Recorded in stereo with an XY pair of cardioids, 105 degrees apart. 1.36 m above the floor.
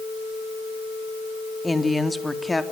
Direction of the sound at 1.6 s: 15° left.